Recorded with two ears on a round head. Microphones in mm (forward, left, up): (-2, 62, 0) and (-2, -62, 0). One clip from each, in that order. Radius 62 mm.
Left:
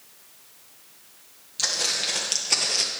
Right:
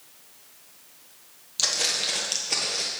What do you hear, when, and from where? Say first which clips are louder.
1.6 s footsteps: even; 20° right (ahead or behind), 1.9 m; by 2.9 s 40° left (ahead or behind), 1.5 m